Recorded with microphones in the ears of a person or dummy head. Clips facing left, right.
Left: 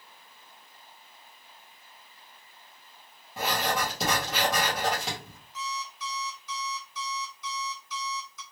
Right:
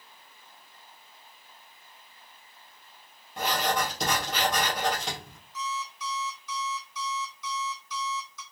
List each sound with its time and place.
3.4 s writing: centre (ahead or behind), 1.2 m
5.5 s an alarm clock: 80° right, 1.6 m